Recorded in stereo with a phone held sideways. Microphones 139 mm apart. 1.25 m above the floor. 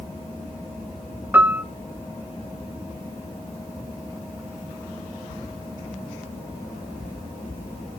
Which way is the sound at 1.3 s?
10° right (ahead or behind).